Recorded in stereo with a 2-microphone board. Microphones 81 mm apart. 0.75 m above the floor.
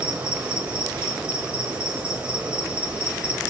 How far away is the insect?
About 4 m.